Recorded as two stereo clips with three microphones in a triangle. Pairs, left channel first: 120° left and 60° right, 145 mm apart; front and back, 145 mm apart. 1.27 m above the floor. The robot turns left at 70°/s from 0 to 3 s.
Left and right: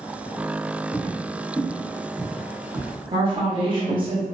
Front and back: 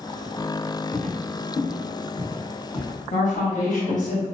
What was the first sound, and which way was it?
Footsteps, 10° left.